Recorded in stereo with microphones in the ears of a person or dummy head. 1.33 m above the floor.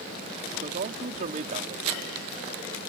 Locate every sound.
0.5 s a man speaking: 45° right (ahead or behind)